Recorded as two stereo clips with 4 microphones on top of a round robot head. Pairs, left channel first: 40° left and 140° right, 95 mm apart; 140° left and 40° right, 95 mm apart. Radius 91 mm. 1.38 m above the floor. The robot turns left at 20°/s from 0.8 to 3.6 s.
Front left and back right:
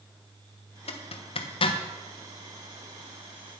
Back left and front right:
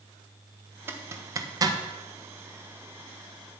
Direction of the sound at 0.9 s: 30° left.